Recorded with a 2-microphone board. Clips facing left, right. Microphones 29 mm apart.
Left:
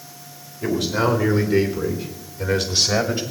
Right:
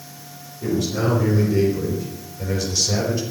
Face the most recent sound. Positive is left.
turn(degrees=60)  # may be behind; listen again after turning